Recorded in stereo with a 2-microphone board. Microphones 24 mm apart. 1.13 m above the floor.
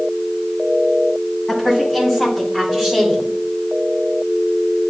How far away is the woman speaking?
About 3.5 m.